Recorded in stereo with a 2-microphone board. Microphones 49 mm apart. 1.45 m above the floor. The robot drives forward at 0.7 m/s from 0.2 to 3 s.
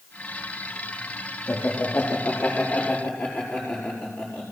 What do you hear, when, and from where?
1.5 s laughter: 50° left (ahead or behind), 3.5 m; by 4.5 s 40° left (ahead or behind), 4.5 m